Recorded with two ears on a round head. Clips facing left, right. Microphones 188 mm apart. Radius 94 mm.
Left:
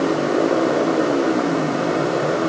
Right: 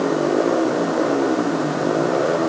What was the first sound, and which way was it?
Only background noise.